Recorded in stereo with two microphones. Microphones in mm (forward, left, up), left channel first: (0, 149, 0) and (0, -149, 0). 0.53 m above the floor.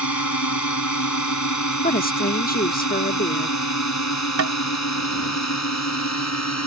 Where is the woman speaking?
30° left (ahead or behind).